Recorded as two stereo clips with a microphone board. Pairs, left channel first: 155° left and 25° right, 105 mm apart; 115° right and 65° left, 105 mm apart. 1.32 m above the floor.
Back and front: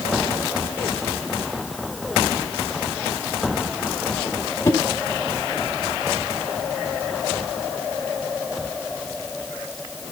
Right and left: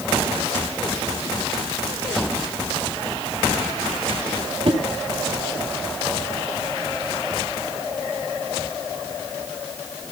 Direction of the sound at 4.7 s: 100° left.